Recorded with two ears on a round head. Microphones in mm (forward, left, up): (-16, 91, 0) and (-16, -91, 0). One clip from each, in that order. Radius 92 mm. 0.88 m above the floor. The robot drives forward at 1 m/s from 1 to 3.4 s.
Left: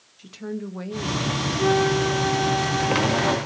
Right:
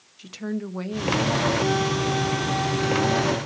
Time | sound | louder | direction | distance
0.2 | a woman speaking | right 1 dB | 20° right (ahead or behind) | 1.1 m
1.6 | a flute | left 3 dB | 35° left (ahead or behind) | 0.6 m